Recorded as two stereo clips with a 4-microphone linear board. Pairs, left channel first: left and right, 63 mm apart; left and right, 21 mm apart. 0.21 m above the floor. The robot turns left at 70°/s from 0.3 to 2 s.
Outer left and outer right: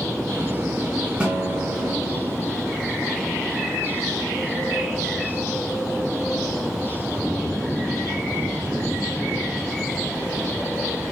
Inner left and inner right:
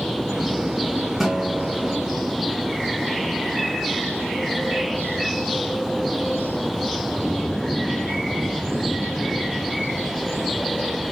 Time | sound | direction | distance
1.2 | a guitar | 160° right | 1.3 m